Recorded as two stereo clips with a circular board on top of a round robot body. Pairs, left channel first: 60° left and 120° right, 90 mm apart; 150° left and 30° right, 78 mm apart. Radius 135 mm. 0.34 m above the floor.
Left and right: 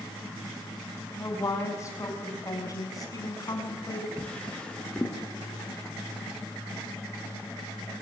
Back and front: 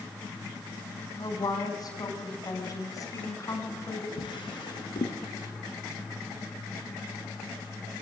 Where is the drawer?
140° left, 3.5 m.